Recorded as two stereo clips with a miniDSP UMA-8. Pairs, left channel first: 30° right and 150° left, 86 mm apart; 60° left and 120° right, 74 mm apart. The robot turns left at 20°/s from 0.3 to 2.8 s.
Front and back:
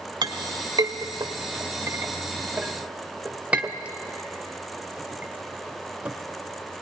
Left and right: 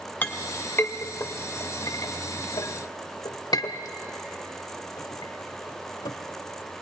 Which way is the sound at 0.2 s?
125° left.